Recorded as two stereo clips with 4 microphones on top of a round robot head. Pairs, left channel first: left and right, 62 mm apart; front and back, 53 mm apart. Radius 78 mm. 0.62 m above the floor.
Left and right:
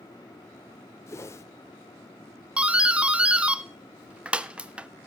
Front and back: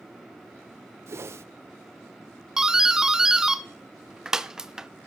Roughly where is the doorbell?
Behind right.